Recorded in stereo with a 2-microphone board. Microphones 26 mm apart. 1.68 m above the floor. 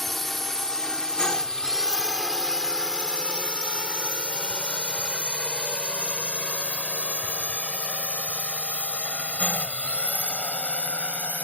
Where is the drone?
5° left (ahead or behind); by 11.4 s 55° left (ahead or behind).